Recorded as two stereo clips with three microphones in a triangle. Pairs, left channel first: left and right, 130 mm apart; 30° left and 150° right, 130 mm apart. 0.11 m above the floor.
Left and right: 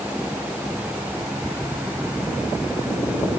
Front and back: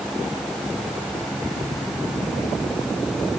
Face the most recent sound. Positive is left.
No sound to turn to.